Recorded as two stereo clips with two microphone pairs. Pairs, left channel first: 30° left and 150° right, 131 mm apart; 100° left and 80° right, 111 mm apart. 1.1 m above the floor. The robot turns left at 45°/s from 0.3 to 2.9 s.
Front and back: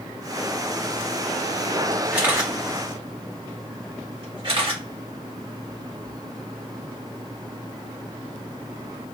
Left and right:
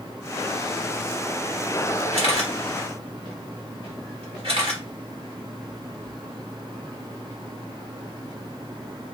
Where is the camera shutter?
70° right, 1.4 m; by 4.8 s 105° right, 1.4 m.